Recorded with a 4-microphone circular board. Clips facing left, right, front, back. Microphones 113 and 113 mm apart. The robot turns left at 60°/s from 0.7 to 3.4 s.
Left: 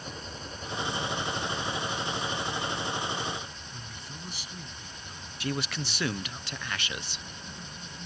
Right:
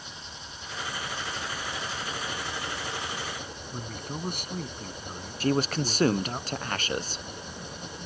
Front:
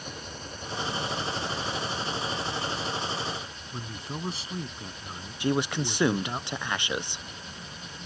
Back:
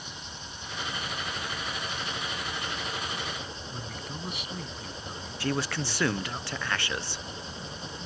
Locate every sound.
0.0 s an engine running: 40° left; by 8.1 s 120° right
3.7 s a man speaking: 55° right
5.4 s a man speaking: 65° right